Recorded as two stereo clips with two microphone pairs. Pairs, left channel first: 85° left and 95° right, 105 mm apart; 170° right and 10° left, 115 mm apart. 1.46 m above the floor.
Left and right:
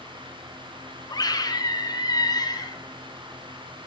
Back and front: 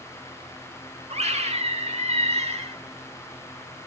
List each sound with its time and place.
1.1 s a scream: 35° left, 4 m